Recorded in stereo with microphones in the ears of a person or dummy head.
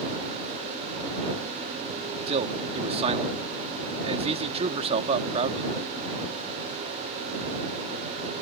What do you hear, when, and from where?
2.3 s a man speaking: 35° right (ahead or behind)